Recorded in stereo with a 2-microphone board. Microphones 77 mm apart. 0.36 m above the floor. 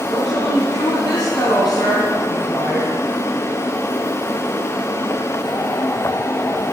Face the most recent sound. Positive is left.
turn(degrees=70)  # may be behind; listen again after turning